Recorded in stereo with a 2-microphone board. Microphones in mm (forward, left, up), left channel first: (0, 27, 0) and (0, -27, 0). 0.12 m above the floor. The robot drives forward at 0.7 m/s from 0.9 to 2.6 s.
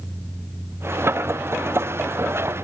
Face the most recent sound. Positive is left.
No sound to turn to.